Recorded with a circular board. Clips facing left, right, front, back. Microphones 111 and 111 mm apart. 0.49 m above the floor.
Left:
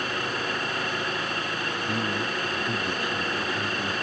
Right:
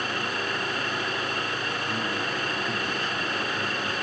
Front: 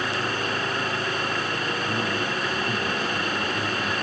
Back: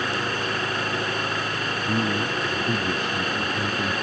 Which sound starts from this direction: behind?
A man speaking, at 1.9 s.